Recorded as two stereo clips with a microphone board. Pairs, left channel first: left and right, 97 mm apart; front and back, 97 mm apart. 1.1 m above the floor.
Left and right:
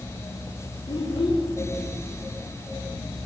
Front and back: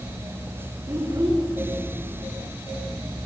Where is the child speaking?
120° left, 2.5 m.